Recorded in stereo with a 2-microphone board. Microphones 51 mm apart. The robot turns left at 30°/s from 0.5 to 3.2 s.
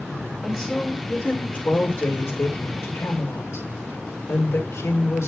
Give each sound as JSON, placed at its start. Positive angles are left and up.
{"t": 0.4, "sound": "a woman speaking", "azimuth_deg": 180, "distance_m": 5.5}